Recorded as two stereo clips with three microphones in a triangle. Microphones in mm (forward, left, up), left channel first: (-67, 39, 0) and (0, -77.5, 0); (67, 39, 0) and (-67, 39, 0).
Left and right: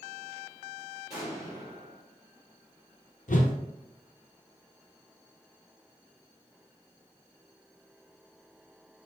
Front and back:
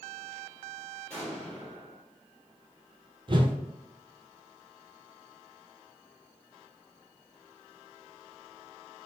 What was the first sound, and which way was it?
An explosion, 70° right.